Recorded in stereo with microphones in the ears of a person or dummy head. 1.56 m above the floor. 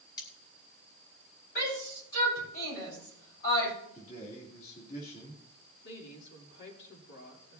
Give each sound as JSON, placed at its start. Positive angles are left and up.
{"t": 0.2, "sound": "cutlery clinking", "side_deg": 25, "distance_m": 2.5}
{"t": 1.6, "sound": "a shout", "side_deg": 50, "distance_m": 5.5}
{"t": 4.0, "sound": "a man speaking", "side_deg": 40, "distance_m": 3.0}
{"t": 5.8, "sound": "a woman speaking", "side_deg": 65, "distance_m": 3.0}